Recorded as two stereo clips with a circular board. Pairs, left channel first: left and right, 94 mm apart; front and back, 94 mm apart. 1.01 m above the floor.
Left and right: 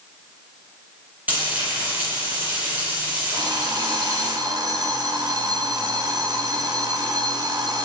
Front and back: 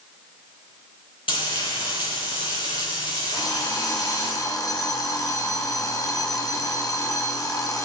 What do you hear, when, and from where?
1.3 s frying: 20° right, 10 m
3.3 s an alarm clock: 50° right, 3 m